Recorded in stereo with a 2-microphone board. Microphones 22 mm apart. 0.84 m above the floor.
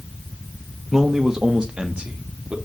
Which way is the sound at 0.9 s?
10° right (ahead or behind).